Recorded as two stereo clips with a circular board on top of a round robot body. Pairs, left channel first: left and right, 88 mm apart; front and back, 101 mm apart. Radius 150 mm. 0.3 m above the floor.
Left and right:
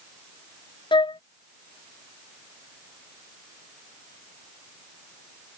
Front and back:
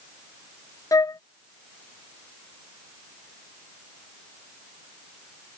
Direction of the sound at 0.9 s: 60° left.